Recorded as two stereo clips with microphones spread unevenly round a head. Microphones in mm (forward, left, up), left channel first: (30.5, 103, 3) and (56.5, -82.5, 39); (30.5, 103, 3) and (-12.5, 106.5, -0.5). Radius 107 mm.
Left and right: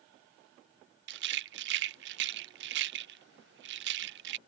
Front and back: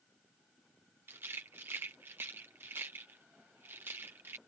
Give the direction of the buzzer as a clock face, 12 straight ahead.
I don't hear a buzzer.